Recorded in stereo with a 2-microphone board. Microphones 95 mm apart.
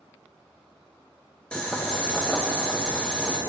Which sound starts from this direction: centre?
Boiling, at 1.5 s.